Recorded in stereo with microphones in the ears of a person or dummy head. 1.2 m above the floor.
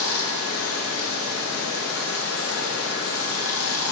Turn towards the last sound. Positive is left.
turn(degrees=85)